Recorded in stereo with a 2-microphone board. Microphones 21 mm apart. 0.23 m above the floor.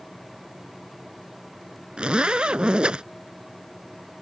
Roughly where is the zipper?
Right.